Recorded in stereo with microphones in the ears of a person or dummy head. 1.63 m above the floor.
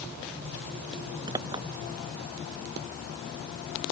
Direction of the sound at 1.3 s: 20° right (ahead or behind).